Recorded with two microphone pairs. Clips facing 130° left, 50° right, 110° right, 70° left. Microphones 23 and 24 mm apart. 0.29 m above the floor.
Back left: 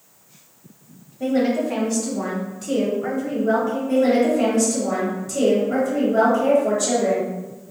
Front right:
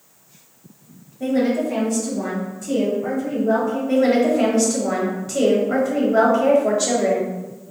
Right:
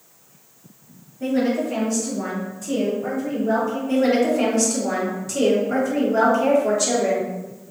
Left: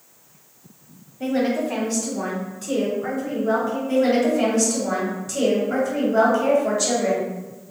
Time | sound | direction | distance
1.2 | a woman speaking | 75° left | 1.2 m
3.9 | a woman speaking | 20° right | 1.3 m